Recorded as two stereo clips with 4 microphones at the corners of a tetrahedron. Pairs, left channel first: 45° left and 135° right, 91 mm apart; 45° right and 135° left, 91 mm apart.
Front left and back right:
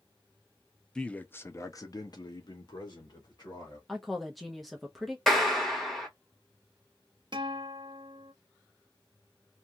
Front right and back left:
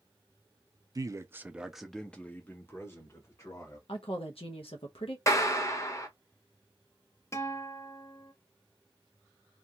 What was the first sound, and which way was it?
A man speaking, 120° left.